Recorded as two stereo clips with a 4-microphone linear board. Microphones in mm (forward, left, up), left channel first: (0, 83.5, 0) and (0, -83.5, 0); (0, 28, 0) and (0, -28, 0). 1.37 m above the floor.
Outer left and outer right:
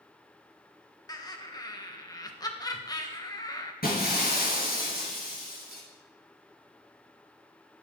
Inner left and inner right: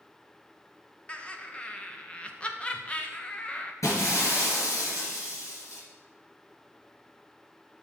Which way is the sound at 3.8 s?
65° left (ahead or behind).